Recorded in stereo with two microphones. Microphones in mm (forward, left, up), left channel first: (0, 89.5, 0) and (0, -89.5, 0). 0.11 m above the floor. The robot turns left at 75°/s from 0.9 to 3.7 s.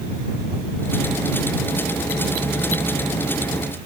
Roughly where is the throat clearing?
No throat clearing in this recording.